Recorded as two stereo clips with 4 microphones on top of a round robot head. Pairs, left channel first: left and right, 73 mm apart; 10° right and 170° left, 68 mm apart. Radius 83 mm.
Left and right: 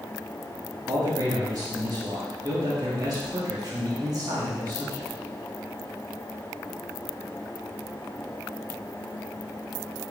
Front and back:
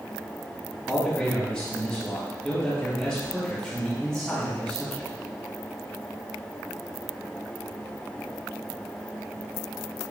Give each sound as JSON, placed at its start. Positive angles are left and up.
{"t": 0.9, "sound": "a man speaking", "azimuth_deg": -90, "distance_m": 2.0}